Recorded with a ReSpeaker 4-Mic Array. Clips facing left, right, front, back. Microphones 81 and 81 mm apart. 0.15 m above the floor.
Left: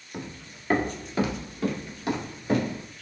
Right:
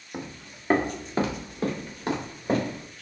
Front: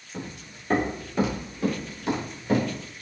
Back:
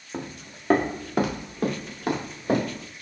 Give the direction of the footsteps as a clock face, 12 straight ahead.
5 o'clock.